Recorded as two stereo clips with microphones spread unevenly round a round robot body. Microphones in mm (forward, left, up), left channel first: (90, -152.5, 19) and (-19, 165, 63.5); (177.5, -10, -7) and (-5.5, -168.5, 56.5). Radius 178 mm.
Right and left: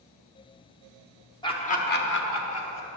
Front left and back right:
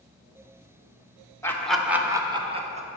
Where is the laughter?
10° right, 1.0 m; by 2.9 s 70° right, 1.3 m.